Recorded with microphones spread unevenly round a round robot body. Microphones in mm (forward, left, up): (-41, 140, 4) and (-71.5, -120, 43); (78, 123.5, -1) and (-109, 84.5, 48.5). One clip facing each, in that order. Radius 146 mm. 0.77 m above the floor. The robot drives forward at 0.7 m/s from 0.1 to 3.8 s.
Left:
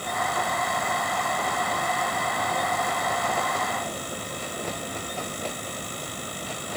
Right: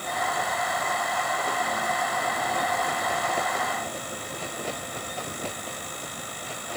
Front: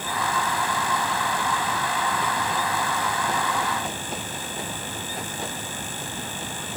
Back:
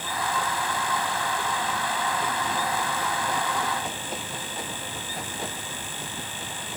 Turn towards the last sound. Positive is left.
No sound to turn to.